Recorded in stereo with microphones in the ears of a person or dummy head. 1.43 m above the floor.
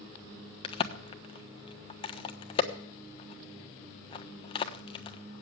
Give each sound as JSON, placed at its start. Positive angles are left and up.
{"t": 0.6, "sound": "a crack", "side_deg": 30, "distance_m": 1.2}